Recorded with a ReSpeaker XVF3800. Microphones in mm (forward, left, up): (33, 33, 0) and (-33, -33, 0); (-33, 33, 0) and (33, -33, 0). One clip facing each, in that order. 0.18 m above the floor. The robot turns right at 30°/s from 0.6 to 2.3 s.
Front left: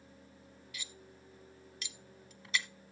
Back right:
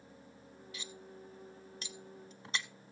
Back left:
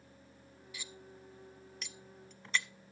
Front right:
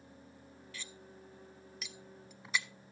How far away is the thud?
No thud in this recording.